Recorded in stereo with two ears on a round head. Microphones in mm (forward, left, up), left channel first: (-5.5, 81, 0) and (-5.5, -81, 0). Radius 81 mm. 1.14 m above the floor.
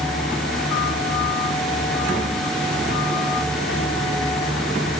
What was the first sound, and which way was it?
Only background noise.